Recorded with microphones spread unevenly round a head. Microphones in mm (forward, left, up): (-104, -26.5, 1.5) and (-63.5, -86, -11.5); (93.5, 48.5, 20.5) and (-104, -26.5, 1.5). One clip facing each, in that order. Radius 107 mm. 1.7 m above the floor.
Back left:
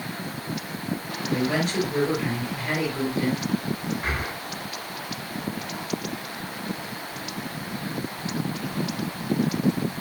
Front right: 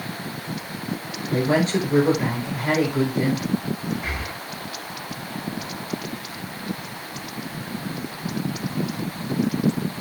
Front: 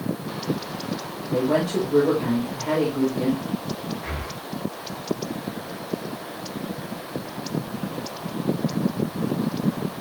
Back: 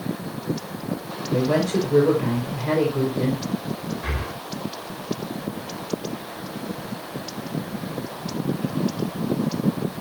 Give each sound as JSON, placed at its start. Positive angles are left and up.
{"t": 1.3, "sound": "a woman speaking", "azimuth_deg": -100, "distance_m": 6.5}
{"t": 4.0, "sound": "breathing", "azimuth_deg": 175, "distance_m": 3.0}